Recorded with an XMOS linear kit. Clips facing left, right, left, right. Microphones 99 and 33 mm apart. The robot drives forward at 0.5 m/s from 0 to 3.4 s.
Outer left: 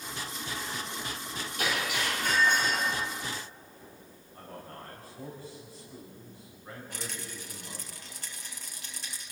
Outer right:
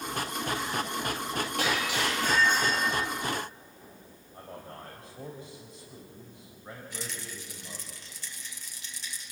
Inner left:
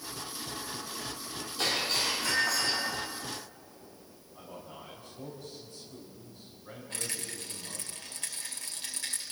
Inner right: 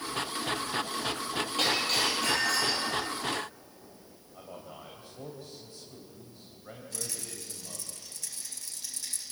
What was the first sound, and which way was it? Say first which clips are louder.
Breaking glass: outer right 1 dB, inner right 2 dB; 85° right.